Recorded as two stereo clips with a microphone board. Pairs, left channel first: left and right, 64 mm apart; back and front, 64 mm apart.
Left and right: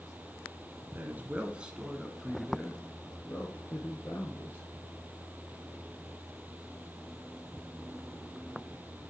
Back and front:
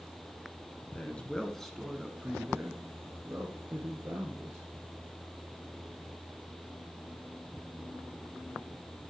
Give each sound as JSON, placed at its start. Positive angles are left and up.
{"t": 0.9, "sound": "a man speaking", "azimuth_deg": -125, "distance_m": 1.4}